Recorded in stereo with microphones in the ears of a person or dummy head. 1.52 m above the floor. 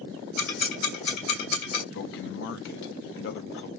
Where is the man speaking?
65° left (ahead or behind), 0.7 m.